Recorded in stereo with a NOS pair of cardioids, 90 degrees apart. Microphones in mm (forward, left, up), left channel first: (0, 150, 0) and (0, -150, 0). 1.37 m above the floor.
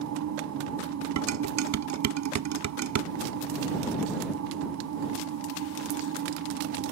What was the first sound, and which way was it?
A machine running, 65° right.